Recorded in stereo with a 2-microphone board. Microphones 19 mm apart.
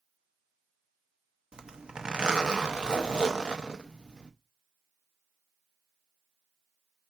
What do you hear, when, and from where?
1.5 s a zipper: 60° right (ahead or behind), 0.7 m